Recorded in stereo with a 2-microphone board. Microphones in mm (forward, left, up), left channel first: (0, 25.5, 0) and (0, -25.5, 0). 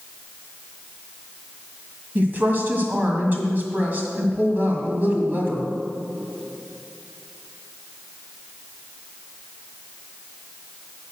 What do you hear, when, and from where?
2.1 s a woman speaking: 35° right (ahead or behind), 1.7 m